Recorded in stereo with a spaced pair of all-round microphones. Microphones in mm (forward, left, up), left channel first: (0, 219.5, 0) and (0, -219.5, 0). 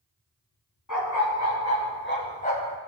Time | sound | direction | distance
0.9 | a dog barking | 45° left (ahead or behind) | 3.5 m